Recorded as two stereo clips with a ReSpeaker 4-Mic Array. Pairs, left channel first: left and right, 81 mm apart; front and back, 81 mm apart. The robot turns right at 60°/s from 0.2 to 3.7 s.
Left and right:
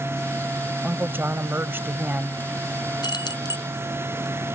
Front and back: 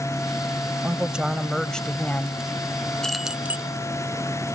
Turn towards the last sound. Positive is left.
turn(degrees=120)